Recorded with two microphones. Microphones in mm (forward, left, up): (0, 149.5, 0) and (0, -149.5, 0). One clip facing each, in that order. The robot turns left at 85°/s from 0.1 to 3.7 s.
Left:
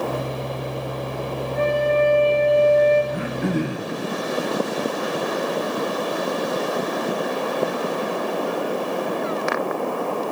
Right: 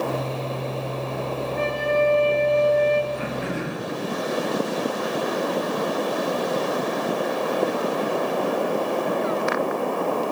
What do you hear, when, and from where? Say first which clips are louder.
1.6 s a flute: left 4 dB; 75° left, 8 m; by 3.0 s 45° right, 8 m
3.1 s throat clearing: left 4 dB; 85° left, 2.5 m; by 3.9 s 35° left, 2.5 m